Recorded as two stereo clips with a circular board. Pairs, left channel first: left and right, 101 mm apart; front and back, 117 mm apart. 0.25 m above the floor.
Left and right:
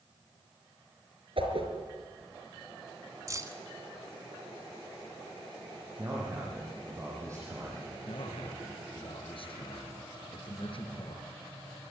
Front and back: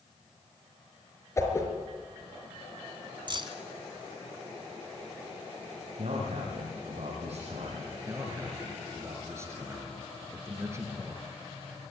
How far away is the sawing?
No sawing in this recording.